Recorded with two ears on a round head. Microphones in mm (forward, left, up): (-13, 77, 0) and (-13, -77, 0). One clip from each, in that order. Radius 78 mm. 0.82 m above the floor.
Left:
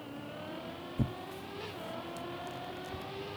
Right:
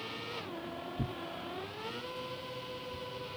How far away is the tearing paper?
About 0.6 m.